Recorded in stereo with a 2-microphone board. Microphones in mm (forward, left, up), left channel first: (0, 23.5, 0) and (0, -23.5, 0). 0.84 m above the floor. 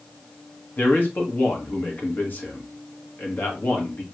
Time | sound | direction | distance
0.8 | a man speaking | 45° left (ahead or behind) | 1.4 m